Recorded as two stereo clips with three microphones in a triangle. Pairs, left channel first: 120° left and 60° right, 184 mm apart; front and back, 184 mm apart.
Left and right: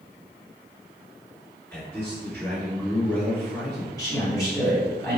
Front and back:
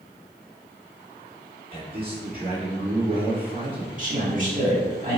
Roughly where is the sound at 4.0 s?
Behind.